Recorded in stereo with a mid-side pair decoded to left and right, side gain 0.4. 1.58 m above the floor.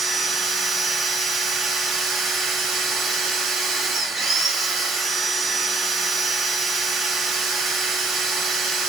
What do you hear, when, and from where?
0.0 s a machine running: 65° right, 1.2 m